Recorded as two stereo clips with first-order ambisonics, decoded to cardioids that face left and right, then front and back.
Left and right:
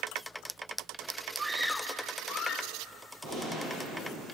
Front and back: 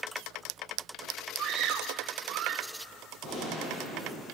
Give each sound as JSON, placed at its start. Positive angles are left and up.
{"t": 1.4, "sound": "a scream", "azimuth_deg": -150, "distance_m": 0.7}
{"t": 3.2, "sound": "a gunshot", "azimuth_deg": -60, "distance_m": 8.5}